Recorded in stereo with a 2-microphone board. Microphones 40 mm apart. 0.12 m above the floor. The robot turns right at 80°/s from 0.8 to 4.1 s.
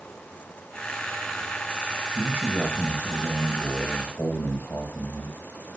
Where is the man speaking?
65° right, 2.5 m; by 5.4 s 90° left, 2.5 m.